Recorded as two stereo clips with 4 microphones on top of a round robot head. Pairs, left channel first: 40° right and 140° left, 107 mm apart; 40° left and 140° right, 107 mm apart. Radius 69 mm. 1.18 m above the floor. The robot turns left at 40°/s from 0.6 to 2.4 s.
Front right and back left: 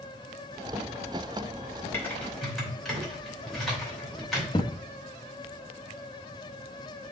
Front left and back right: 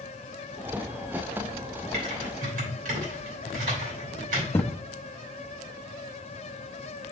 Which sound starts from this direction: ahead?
A thud, at 4.5 s.